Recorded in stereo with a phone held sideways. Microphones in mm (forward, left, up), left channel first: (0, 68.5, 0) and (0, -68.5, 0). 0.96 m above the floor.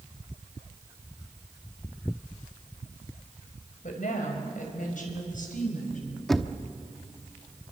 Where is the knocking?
Centre (ahead or behind), 0.9 m.